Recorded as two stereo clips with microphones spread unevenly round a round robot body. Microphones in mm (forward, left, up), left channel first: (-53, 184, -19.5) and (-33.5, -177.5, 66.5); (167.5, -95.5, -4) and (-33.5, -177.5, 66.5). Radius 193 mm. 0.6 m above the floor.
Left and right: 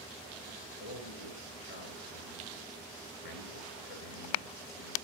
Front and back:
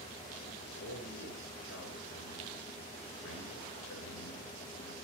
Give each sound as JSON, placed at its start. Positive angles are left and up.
{"t": 0.8, "sound": "a man speaking", "azimuth_deg": 65, "distance_m": 8.5}